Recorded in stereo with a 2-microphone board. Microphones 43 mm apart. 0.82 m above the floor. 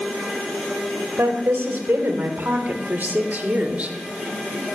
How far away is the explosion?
No explosion in this recording.